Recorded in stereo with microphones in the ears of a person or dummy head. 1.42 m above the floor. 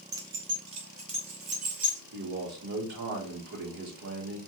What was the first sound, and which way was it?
Keys jangling, 20° right (ahead or behind).